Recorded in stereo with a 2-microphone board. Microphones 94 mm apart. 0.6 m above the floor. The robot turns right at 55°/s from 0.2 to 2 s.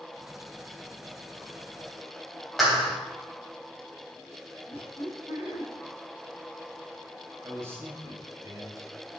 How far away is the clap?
About 2.5 m.